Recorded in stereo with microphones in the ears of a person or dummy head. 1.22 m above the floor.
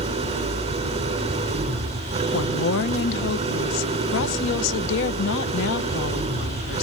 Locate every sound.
0.0 s an engine running: 30° right (ahead or behind), 3.5 m
2.3 s a woman speaking: 65° left (ahead or behind), 0.9 m